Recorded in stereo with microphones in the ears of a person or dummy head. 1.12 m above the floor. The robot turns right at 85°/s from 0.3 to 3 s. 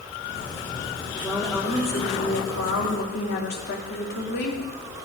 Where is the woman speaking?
20° right, 2.5 m; by 5.1 s 130° left, 2.5 m.